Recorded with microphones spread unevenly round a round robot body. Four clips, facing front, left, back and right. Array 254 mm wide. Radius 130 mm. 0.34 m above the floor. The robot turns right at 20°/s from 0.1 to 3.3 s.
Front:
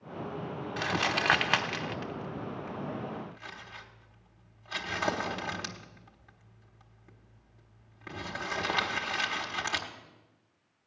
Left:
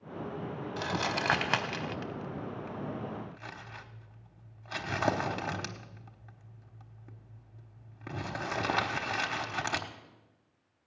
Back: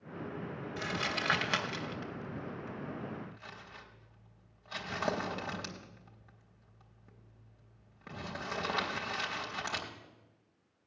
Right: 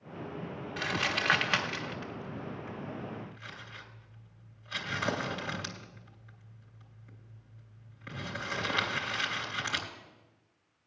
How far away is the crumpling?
About 1.3 m.